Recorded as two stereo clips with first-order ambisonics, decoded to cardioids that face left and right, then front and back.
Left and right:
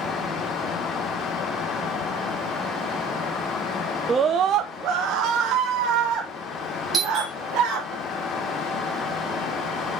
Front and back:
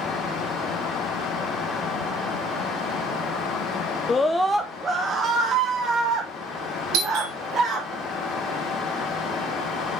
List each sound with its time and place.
4.1 s a scream: 40° right, 0.6 m; by 7.9 s 130° right, 3.5 m
6.9 s a doorbell: 160° right, 6.5 m